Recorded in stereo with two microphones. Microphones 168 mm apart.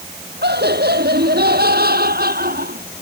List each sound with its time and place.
0.4 s laughter: 75° right (ahead or behind); by 2.9 s 60° right (ahead or behind)